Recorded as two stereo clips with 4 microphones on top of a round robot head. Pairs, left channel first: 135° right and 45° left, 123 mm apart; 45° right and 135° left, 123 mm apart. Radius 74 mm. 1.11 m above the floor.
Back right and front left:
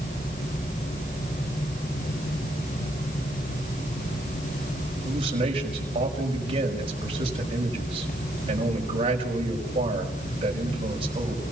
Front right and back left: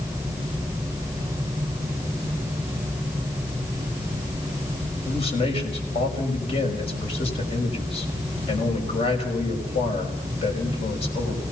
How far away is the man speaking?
About 5.5 m.